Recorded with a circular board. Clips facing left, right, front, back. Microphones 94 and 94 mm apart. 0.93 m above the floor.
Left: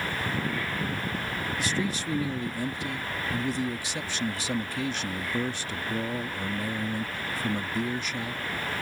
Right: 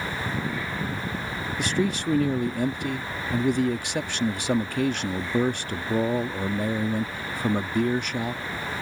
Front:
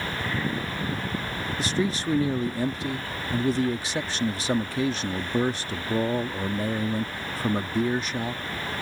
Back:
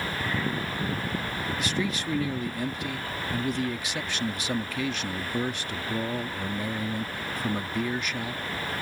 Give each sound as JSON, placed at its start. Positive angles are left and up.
{"t": 1.6, "sound": "a man speaking", "azimuth_deg": -60}